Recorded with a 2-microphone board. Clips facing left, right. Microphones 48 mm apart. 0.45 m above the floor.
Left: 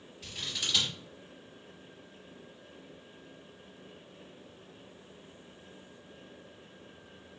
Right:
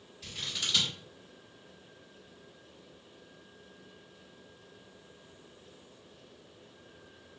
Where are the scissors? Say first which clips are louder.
Even; centre (ahead or behind), 1.4 m.